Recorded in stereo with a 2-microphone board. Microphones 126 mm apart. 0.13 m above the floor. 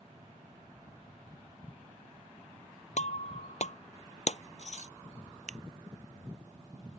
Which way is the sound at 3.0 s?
60° left (ahead or behind).